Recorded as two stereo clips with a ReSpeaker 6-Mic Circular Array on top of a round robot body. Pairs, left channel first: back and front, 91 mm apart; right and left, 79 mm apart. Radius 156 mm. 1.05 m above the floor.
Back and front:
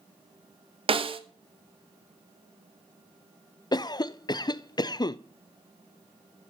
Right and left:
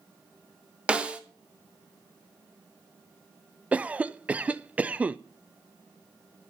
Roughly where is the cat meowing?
No cat meowing in this recording.